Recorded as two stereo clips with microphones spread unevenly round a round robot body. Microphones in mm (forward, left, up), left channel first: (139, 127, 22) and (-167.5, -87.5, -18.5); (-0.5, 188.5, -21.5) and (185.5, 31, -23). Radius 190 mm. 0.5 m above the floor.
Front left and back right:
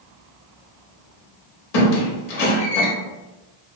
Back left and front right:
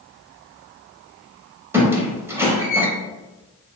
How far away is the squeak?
About 0.8 m.